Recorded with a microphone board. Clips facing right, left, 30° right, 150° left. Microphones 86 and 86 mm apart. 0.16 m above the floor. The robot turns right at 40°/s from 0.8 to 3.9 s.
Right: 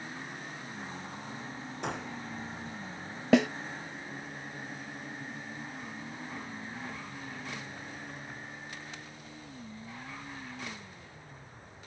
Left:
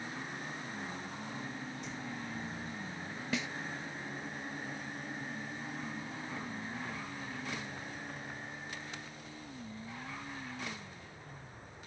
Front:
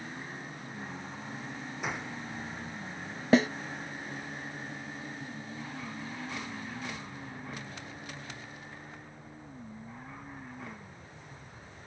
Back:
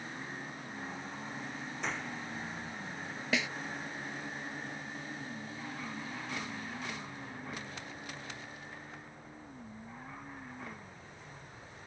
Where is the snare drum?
80° right; by 3.5 s 70° right.